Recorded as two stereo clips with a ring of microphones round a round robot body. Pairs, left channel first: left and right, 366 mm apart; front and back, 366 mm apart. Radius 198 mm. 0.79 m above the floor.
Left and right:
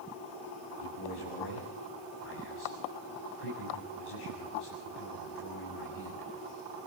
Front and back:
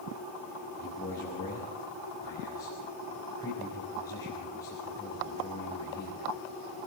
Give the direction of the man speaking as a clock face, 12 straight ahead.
9 o'clock.